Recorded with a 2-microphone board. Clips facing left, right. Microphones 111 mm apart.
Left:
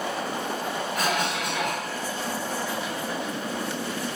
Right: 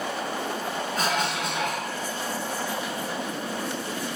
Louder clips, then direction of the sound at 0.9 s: Even; 30° right (ahead or behind).